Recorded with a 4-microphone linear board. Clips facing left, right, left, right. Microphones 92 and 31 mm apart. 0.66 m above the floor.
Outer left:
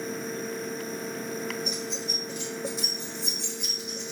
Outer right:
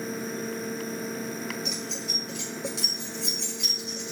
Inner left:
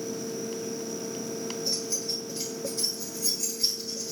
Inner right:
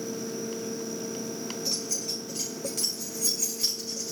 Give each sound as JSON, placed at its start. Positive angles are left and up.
{"t": 1.6, "sound": "keys jangling", "side_deg": -75, "distance_m": 5.0}